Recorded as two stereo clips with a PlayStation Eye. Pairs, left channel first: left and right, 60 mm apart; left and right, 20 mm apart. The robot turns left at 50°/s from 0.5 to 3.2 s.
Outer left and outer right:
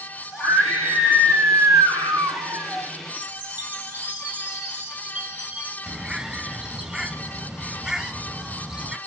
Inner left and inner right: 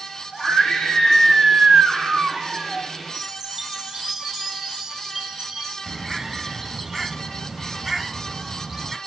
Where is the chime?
25° right (ahead or behind), 2.5 m.